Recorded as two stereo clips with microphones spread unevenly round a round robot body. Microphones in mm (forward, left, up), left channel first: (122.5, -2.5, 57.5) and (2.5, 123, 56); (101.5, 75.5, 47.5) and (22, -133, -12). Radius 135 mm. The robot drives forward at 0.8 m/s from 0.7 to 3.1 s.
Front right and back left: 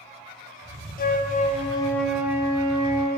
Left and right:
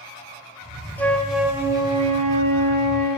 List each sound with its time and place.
1.0 s a flute: 25° right, 0.8 m; by 3.1 s 165° right, 1.2 m